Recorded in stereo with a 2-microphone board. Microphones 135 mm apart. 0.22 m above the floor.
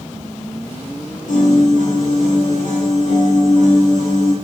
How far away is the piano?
About 5.5 m.